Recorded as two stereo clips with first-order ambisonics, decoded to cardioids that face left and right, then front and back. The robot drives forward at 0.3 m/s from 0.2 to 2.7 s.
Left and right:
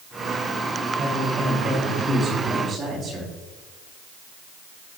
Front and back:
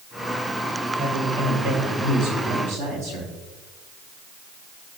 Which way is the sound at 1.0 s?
160° right.